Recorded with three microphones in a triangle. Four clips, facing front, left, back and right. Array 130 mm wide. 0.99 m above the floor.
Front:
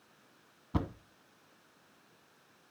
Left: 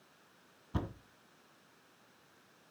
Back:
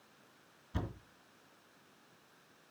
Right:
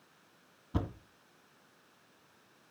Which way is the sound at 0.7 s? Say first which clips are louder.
Right 3 dB, front 7 dB; straight ahead.